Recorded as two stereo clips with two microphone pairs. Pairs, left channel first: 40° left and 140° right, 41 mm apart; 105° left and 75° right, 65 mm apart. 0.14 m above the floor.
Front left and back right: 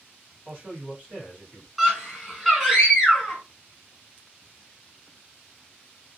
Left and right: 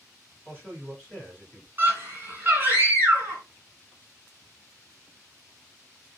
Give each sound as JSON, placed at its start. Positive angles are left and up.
{"t": 0.5, "sound": "a man speaking", "azimuth_deg": 170, "distance_m": 2.0}
{"t": 1.8, "sound": "a scream", "azimuth_deg": -65, "distance_m": 1.9}